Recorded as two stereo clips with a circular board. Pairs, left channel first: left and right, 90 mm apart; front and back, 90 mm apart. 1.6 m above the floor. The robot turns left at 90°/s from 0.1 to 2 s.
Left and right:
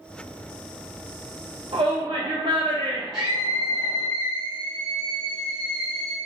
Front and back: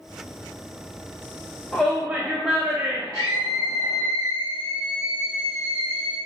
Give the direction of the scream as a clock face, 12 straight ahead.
5 o'clock.